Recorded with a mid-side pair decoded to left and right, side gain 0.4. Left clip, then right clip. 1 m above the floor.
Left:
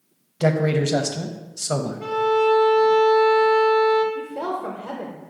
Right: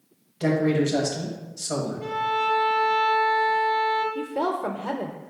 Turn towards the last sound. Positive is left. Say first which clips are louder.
# right 1 dB
turn(degrees=-40)